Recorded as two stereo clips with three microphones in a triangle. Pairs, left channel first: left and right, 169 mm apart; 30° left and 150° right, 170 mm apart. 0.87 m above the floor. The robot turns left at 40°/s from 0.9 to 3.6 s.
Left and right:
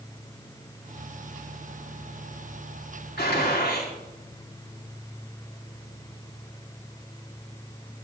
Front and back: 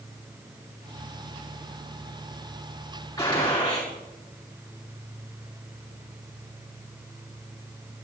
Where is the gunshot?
100° left, 4 m; by 3.9 s 80° left, 4 m.